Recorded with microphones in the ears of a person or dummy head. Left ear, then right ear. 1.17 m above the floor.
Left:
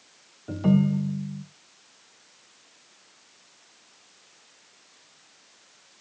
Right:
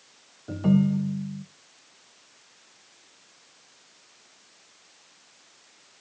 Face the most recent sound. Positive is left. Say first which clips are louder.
# even
turn(degrees=0)  # may be behind; listen again after turning